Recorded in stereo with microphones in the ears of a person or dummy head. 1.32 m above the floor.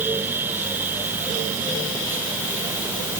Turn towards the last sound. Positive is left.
No sound to turn to.